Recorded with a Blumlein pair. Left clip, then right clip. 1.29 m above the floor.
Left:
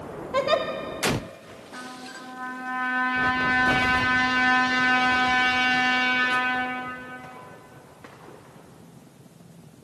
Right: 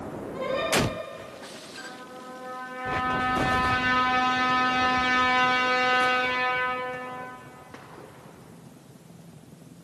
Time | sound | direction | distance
0.3 | a giggle | 40° left | 2.5 m
1.7 | a trumpet | 35° left | 9.5 m